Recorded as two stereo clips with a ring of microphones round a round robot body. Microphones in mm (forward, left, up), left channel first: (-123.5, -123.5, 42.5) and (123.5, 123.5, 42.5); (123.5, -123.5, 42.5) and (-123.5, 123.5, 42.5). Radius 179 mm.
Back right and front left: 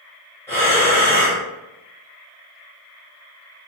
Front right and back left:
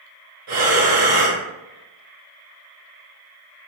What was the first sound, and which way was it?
Breathing, 145° left.